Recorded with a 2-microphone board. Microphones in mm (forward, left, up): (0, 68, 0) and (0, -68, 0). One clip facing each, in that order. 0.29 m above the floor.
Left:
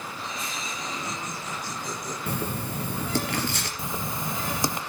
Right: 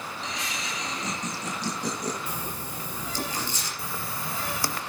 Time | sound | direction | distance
0.2 | laughter | 75° right (ahead or behind) | 7 m
2.3 | writing | 60° left (ahead or behind) | 4 m
3.8 | writing | 20° left (ahead or behind) | 0.7 m